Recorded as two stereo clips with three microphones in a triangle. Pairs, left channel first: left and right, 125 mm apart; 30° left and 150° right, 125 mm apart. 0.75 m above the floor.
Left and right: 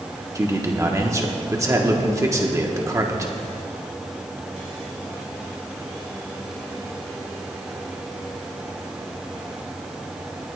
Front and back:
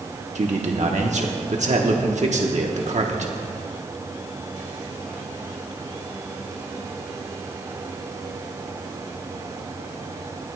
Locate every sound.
0.3 s a man speaking: 155° right, 1.3 m